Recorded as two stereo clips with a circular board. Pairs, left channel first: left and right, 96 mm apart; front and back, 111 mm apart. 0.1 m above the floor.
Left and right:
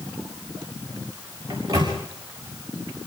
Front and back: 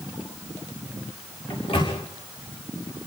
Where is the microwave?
35° right, 7.5 m.